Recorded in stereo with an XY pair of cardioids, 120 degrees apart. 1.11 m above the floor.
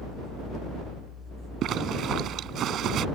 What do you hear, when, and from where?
1.6 s a zipper: 60° right